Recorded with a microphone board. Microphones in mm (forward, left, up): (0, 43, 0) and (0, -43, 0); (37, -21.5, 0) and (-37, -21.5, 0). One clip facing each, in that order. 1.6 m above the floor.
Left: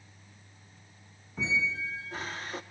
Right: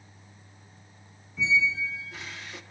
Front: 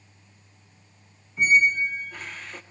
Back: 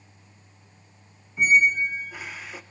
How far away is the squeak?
About 0.7 m.